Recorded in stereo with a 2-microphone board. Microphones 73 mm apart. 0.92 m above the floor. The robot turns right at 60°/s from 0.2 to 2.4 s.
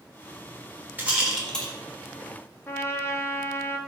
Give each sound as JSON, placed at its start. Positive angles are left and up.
{"t": 1.0, "sound": "a rattle", "side_deg": -25, "distance_m": 1.6}
{"t": 2.7, "sound": "a trumpet", "side_deg": 30, "distance_m": 0.5}